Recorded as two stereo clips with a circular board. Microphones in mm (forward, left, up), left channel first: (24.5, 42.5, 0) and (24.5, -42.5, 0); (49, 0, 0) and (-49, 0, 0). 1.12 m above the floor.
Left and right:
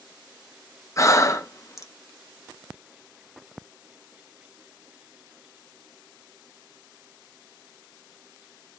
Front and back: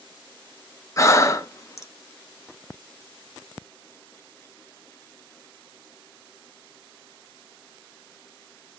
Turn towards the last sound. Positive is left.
turn(degrees=50)